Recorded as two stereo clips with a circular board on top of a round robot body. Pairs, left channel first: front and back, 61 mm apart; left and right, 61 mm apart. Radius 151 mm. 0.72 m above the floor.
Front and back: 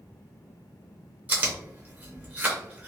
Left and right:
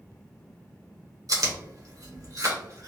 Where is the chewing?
120° right, 1.1 m.